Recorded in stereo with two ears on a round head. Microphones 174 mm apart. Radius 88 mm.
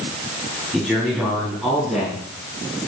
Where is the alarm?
No alarm in this recording.